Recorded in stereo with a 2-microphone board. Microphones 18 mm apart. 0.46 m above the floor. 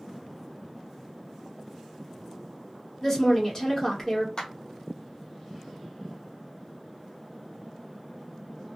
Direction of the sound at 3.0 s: 25° left (ahead or behind).